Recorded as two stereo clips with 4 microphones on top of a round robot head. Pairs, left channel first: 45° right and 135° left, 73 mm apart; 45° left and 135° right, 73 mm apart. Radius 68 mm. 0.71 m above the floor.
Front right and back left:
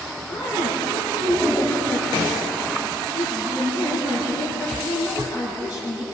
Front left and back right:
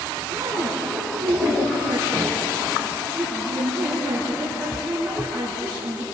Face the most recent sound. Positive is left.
turn(degrees=-55)